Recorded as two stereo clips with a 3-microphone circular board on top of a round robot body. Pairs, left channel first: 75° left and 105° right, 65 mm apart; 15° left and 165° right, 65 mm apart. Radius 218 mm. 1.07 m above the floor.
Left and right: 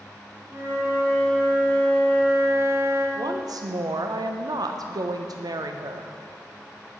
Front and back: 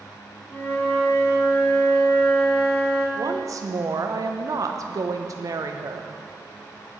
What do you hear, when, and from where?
0.5 s a flute: 55° right, 2.5 m
3.1 s a woman speaking: 130° right, 0.6 m